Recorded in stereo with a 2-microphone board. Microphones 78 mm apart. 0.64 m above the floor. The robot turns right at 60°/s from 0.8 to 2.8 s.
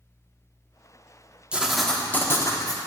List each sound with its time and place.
1.5 s writing: 15° right, 0.5 m; by 2.8 s 60° left, 0.5 m